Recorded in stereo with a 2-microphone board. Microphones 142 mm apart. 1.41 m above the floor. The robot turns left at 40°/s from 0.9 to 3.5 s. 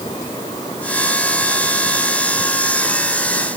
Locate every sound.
Only background noise.